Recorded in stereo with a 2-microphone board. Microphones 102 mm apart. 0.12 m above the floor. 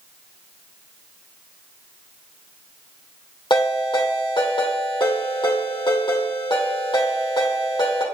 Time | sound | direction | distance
3.5 | a ringtone | 50° left (ahead or behind) | 3.5 m